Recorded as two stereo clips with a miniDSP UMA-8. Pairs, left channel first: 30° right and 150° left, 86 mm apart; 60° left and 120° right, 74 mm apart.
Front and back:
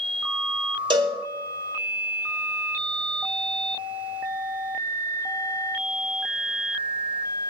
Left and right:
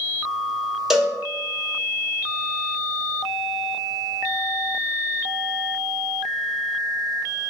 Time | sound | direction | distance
0.9 | a cowbell | 155° left | 1.4 m